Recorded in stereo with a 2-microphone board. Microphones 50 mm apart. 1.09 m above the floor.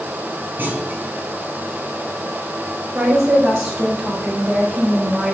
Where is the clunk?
40° right (ahead or behind), 4 m.